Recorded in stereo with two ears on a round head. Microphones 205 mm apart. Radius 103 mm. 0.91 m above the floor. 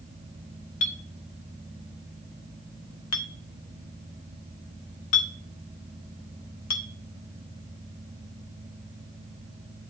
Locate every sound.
0.8 s a clink: 80° left, 1.3 m